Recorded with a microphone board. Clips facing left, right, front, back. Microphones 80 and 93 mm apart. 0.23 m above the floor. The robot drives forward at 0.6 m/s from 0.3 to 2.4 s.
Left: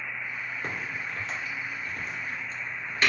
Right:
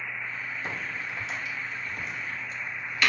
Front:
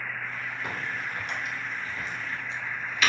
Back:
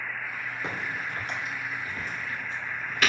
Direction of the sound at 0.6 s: 115° left.